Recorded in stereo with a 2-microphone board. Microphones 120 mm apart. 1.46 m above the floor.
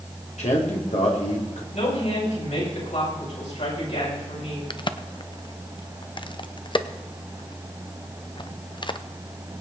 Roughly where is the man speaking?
Left.